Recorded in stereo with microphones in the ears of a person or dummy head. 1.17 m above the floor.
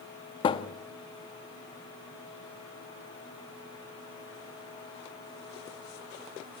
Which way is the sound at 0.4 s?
30° left (ahead or behind).